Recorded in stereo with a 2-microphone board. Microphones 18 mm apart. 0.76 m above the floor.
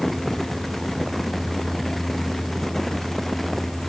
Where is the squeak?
No squeak in this recording.